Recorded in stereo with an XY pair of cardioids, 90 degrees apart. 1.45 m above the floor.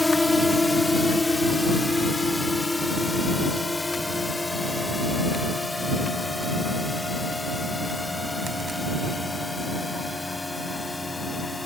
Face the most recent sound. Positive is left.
turn(degrees=20)